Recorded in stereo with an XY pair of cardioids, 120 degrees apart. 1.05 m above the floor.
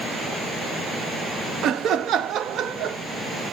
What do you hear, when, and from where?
1.6 s laughter: 60° right, 0.9 m